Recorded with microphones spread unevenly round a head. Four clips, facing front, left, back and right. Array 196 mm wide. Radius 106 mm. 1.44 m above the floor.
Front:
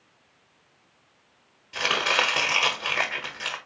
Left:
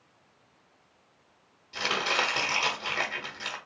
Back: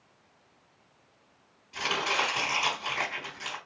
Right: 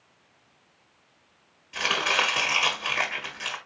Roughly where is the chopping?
Ahead left.